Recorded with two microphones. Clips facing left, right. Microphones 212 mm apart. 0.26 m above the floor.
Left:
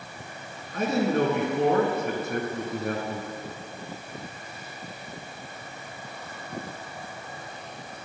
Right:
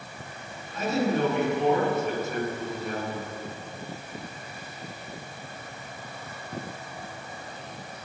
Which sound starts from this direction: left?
A man speaking, at 0.7 s.